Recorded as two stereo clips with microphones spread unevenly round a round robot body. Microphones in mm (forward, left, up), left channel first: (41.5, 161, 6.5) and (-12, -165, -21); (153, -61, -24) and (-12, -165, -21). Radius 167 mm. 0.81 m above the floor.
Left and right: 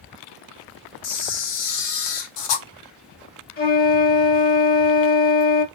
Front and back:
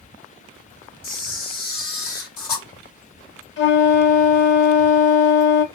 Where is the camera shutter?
70° left, 0.8 m.